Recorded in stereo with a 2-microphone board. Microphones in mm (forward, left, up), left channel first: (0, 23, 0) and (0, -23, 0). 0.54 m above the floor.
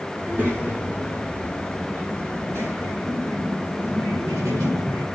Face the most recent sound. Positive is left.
turn(degrees=-75)  # may be behind; listen again after turning